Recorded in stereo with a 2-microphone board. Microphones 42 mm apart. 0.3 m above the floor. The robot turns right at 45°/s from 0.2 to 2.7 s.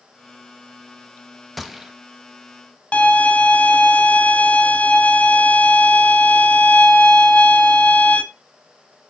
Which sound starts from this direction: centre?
A gunshot, at 1.6 s.